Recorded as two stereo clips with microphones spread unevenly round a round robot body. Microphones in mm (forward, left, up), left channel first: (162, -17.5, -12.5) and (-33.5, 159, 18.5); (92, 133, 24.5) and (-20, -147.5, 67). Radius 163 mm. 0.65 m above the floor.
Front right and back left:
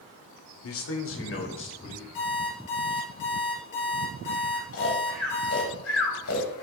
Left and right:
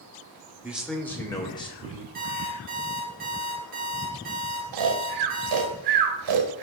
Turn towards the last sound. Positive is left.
turn(degrees=-95)